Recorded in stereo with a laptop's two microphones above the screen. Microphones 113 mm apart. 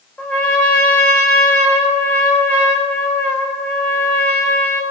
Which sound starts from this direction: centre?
A trumpet, at 0.2 s.